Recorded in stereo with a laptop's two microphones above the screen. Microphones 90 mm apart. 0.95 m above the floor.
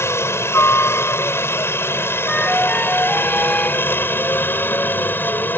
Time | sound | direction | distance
0.0 | a helicopter | 30° left (ahead or behind) | ?
2.3 | a flute | 10° left (ahead or behind) | ?